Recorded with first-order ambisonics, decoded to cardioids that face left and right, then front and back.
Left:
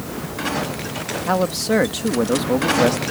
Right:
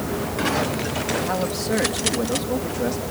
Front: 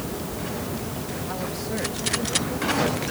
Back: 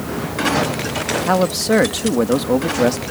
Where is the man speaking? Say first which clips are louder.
Left 4 dB, back 16 dB; 155° left.